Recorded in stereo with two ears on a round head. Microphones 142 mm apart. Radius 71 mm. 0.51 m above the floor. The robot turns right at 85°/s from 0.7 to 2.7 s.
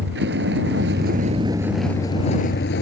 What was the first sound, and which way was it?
A vehicle, 95° right.